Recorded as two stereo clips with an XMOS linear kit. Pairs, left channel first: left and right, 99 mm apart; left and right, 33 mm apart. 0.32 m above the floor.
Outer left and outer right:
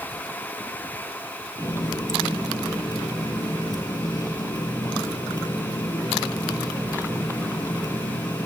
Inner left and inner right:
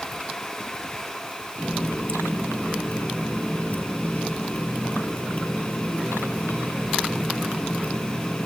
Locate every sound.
1.6 s a running tap: 45° left (ahead or behind), 5.5 m